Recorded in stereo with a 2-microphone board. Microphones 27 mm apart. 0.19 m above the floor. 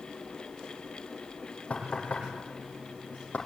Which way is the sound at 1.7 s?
55° left (ahead or behind).